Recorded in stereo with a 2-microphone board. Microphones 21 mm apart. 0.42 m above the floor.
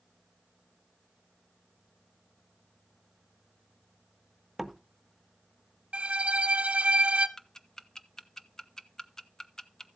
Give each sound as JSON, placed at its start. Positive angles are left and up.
{"t": 4.6, "sound": "a door slam", "side_deg": -5, "distance_m": 0.7}
{"t": 5.9, "sound": "a violin", "side_deg": -85, "distance_m": 0.8}
{"t": 7.4, "sound": "ticking", "side_deg": 25, "distance_m": 0.5}